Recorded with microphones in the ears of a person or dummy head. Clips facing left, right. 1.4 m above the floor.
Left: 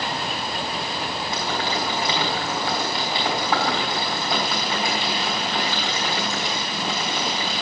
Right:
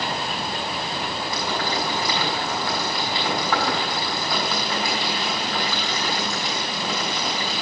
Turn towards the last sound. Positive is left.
turn(degrees=25)  # may be behind; listen again after turning